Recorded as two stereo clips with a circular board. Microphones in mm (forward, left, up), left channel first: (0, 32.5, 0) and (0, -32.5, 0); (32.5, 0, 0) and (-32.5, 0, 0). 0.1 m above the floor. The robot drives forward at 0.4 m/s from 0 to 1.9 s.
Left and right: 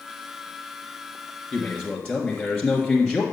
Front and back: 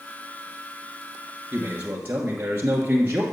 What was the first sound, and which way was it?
A man speaking, 145° left.